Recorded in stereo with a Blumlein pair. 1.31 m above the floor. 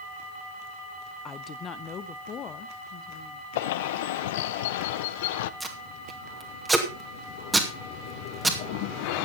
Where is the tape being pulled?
10° right, 2.5 m.